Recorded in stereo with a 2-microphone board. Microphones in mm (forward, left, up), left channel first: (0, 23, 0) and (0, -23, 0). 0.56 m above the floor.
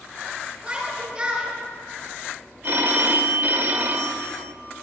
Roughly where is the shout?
Right.